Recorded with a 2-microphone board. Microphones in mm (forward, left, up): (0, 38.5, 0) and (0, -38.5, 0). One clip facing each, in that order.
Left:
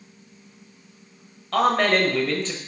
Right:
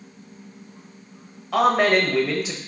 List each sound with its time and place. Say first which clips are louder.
1.5 s a man speaking: right 2 dB; 10° right (ahead or behind), 1.0 m